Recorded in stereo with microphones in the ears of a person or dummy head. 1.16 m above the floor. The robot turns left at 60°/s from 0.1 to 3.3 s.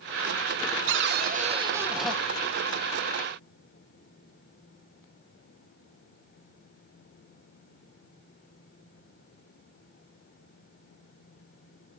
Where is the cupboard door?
110° right, 0.6 m; by 2.2 s 170° left, 0.6 m.